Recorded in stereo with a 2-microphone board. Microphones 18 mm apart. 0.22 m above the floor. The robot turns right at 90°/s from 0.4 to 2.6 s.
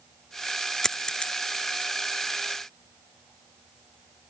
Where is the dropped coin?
30° left (ahead or behind); by 1.3 s 70° left (ahead or behind).